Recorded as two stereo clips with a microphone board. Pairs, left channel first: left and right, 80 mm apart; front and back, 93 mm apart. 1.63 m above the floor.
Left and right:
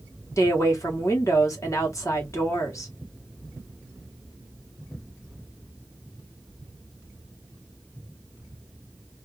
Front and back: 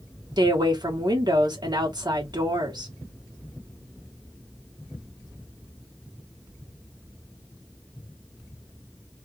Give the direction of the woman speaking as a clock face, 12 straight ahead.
7 o'clock.